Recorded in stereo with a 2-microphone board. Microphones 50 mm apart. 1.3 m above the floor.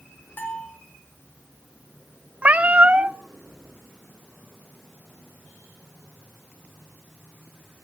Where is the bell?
45° left (ahead or behind), 3 m.